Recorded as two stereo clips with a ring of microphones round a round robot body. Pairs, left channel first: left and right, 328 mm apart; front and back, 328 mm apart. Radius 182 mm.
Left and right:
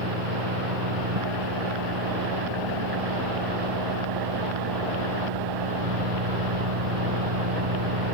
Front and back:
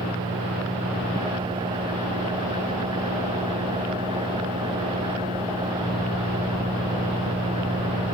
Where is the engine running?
105° right.